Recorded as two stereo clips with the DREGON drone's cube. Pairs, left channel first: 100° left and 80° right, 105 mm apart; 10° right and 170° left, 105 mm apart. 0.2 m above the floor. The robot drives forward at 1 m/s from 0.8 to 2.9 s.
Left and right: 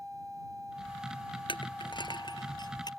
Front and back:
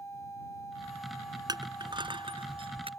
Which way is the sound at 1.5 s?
125° left.